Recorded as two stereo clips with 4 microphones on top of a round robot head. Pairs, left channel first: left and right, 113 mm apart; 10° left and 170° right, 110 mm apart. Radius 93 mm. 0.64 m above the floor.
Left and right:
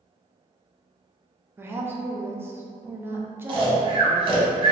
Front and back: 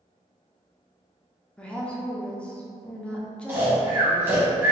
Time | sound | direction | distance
1.6 | a woman speaking | 55° right | 0.5 m
3.5 | snoring | 105° right | 0.8 m